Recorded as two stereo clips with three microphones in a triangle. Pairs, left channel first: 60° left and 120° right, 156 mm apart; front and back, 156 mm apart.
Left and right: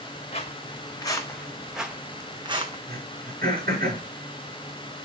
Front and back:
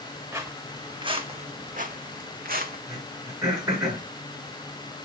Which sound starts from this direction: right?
Throat clearing, at 2.9 s.